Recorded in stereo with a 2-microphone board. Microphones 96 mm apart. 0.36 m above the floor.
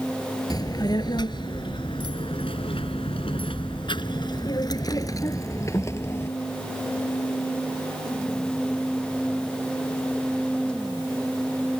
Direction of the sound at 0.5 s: 45° left (ahead or behind).